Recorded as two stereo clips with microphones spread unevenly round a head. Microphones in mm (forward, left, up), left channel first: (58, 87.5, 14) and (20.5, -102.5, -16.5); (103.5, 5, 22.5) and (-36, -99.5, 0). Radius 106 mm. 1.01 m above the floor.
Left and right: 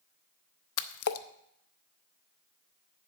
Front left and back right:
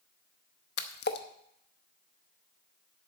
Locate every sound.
0.8 s a splash: 85° left, 0.6 m